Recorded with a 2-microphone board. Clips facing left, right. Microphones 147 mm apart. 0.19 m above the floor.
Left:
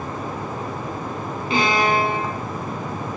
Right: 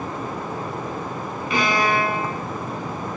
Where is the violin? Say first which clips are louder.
Left 2 dB; 30° left (ahead or behind), 0.8 m.